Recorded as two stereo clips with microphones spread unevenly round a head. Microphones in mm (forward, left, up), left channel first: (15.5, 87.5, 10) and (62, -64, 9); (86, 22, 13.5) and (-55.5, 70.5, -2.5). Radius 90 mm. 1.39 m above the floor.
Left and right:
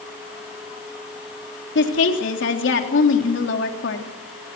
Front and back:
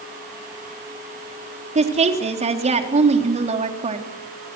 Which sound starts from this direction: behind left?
A woman speaking, at 1.8 s.